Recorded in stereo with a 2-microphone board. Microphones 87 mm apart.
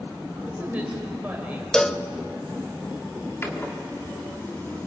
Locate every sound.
0.4 s a woman speaking: 15° right (ahead or behind), 6 m
1.7 s a cowbell: 10° left (ahead or behind), 0.7 m
3.4 s a door slam: 25° left (ahead or behind), 2.5 m